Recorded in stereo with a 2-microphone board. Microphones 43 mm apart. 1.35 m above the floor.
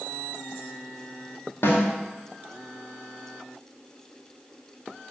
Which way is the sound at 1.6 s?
75° left (ahead or behind).